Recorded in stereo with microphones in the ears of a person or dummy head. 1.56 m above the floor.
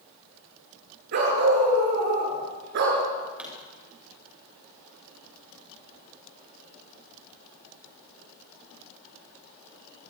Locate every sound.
1.1 s a dog barking: 60° right (ahead or behind), 7 m
3.4 s a pop: 5° right (ahead or behind), 7 m